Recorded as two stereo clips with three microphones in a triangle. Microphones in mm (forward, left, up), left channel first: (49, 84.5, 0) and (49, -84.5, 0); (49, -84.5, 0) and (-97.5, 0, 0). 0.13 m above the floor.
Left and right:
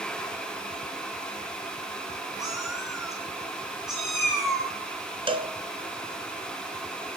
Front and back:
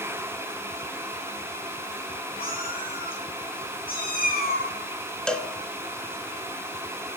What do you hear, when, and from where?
2.4 s a cat meowing: 5° right, 3 m
5.3 s a cowbell: 110° right, 1.0 m